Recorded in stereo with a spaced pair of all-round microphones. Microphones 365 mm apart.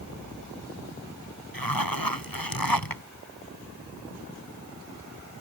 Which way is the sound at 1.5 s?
80° left.